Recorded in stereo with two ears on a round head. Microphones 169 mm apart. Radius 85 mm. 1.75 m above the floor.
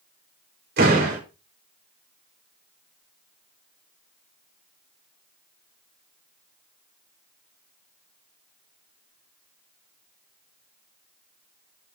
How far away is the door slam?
About 4.5 m.